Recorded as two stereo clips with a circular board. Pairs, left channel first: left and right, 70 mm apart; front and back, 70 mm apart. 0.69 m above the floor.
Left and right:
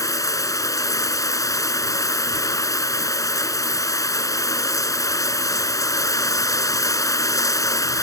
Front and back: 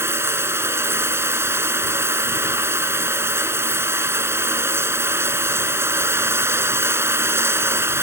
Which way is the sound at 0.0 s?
125° left.